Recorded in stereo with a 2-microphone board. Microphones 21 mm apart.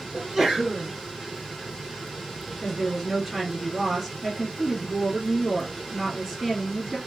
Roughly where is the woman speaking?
Centre.